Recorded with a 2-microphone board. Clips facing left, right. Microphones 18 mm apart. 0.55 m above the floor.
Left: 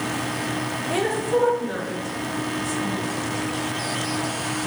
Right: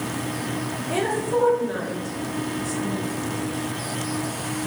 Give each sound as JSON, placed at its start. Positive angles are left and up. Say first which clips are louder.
{"t": 0.9, "sound": "a woman speaking", "louder": "left 1 dB", "side_deg": 0, "distance_m": 1.1}